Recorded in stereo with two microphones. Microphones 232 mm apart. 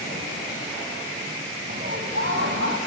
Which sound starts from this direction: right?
Laughter, at 1.7 s.